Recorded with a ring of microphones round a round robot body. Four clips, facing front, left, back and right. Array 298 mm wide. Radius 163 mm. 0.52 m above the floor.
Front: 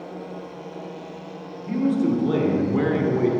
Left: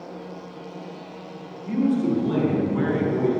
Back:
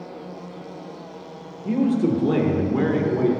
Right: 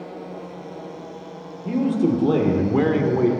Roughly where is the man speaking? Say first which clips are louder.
Right 2 dB, back 1 dB; behind right.